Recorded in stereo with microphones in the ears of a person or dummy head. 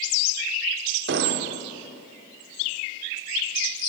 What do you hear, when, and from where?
1.1 s an explosion: 55° right (ahead or behind), 0.5 m